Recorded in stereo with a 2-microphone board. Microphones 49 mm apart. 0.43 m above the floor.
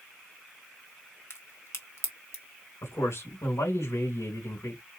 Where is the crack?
60° left (ahead or behind), 1.2 m.